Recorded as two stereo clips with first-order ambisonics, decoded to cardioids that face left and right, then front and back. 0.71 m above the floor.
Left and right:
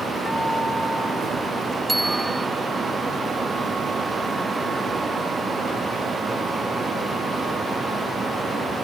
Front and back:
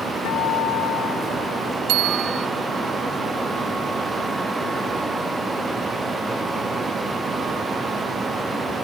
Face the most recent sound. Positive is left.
turn(degrees=-175)